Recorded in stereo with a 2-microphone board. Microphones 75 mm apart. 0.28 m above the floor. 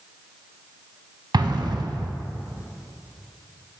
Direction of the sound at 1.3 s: 70° right (ahead or behind).